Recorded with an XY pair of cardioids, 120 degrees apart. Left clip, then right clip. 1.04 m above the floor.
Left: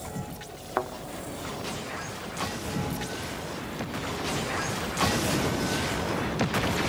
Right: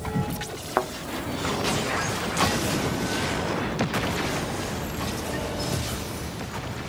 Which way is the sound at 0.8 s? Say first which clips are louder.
Right 4 dB; 25° right.